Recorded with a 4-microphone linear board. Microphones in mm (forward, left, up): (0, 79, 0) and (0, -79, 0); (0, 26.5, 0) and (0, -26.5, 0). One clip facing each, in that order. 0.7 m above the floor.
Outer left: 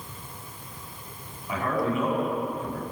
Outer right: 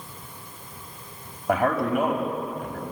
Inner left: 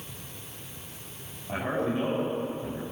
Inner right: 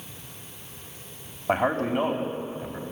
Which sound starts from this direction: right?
A man speaking, at 1.5 s.